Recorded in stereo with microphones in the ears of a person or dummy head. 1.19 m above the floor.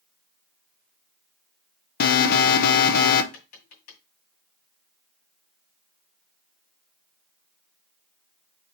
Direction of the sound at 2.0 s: 55° left (ahead or behind).